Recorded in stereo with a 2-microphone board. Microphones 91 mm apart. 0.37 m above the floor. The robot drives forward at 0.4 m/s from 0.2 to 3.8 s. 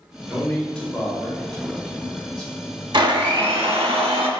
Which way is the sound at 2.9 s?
55° right (ahead or behind).